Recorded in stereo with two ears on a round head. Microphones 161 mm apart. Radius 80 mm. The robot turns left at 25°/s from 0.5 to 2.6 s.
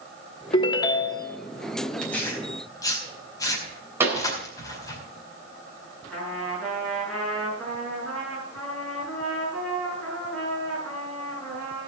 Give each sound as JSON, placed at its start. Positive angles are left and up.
{"t": 0.5, "sound": "a ringtone", "side_deg": 30, "distance_m": 1.2}
{"t": 2.0, "sound": "tearing paper", "side_deg": 5, "distance_m": 4.5}
{"t": 4.0, "sound": "a pop", "side_deg": -15, "distance_m": 3.5}
{"t": 6.1, "sound": "a trumpet", "side_deg": 5, "distance_m": 8.0}